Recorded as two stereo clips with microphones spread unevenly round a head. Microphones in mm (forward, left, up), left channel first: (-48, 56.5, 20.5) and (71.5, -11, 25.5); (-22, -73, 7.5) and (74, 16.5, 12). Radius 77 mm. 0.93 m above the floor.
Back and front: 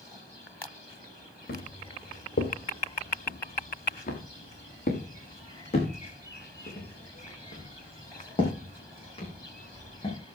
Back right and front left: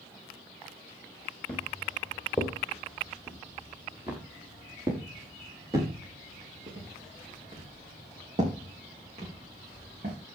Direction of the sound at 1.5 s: 140° left.